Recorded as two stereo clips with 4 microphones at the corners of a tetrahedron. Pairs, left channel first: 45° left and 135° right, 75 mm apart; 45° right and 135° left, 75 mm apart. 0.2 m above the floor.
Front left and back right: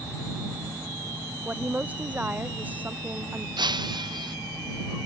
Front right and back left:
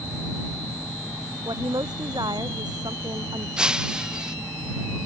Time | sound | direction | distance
1.4 | a woman speaking | 155° left | ?
3.6 | breaking glass | 145° right | ?